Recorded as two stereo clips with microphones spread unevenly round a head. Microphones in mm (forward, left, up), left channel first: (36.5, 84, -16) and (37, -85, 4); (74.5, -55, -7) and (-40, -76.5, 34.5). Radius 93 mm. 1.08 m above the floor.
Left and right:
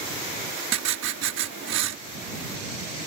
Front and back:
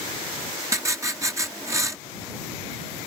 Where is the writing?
105° right.